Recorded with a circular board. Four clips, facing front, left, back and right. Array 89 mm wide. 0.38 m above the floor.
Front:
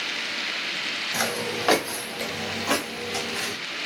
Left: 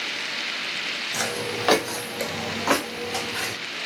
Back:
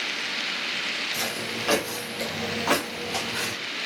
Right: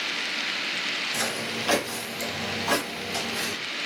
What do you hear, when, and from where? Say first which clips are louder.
1.1 s footsteps: left 4 dB, front 8 dB; 15° left, 0.8 m; by 3.5 s 125° left, 1.9 m